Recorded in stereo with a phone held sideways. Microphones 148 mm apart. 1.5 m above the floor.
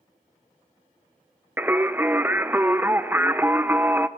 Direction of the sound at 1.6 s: 15° right (ahead or behind).